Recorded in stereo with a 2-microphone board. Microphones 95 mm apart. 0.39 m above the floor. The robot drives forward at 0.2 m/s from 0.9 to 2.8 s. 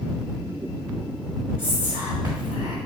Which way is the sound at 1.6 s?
15° right (ahead or behind).